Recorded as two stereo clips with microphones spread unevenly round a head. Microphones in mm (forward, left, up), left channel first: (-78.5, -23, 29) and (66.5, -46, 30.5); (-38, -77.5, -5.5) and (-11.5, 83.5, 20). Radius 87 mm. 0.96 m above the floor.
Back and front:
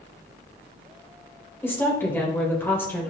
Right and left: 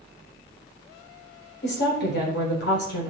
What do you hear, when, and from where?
1.6 s a woman speaking: 115° right, 3.5 m